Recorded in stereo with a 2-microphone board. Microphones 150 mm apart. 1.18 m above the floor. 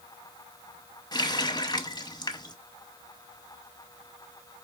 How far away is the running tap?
About 0.7 m.